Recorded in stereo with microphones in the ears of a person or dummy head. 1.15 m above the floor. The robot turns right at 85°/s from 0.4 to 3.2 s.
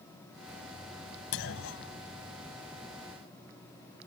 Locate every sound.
1.3 s a clunk: 65° left; by 2.0 s 120° left